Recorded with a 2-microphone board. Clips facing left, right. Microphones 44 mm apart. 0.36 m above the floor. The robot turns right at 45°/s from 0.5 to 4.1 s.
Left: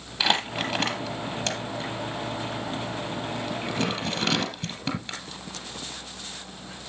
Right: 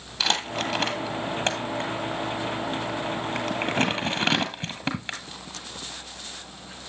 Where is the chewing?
I don't hear chewing.